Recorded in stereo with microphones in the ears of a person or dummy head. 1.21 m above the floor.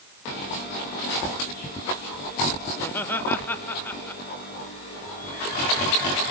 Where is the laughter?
10° left (ahead or behind), 2 m.